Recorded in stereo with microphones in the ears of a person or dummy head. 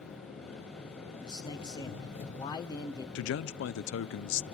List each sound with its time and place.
0.0 s an engine running: 40° left (ahead or behind), 5 m
1.2 s a man speaking: 25° left (ahead or behind), 1.7 m
3.1 s a man speaking: 75° left (ahead or behind), 0.6 m